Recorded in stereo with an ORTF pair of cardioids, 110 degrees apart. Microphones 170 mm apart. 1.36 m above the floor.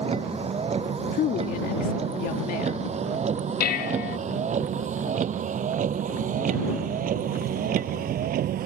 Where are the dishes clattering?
65° left.